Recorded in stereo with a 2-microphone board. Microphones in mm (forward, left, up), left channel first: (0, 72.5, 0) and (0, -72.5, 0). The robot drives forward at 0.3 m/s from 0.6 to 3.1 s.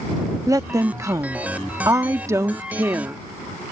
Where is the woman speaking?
20° right (ahead or behind); by 3.2 s 15° right (ahead or behind).